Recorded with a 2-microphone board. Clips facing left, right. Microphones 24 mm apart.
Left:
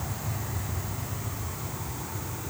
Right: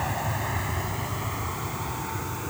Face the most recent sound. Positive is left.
turn(degrees=-30)  # may be behind; listen again after turning